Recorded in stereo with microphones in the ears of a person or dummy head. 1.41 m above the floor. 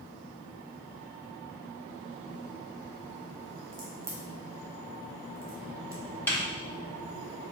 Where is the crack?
15° right (ahead or behind), 0.6 m.